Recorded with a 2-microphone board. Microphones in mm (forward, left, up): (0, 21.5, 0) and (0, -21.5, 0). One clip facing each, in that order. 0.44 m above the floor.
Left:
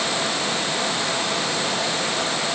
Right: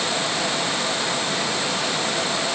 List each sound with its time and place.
Only background noise.